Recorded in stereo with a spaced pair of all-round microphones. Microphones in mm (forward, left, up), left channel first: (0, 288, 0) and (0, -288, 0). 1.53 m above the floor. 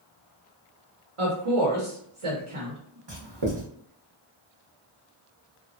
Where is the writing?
50° right (ahead or behind), 0.9 m.